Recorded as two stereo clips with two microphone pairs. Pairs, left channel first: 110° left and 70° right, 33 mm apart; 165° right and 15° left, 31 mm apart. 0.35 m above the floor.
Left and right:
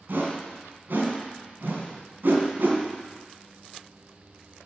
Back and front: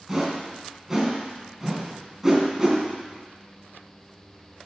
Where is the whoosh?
70° right, 2.5 m.